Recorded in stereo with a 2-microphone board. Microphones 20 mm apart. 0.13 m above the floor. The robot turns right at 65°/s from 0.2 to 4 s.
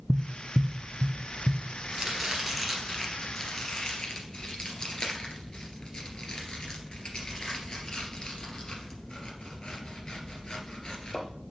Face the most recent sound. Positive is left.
turn(degrees=55)  # may be behind; listen again after turning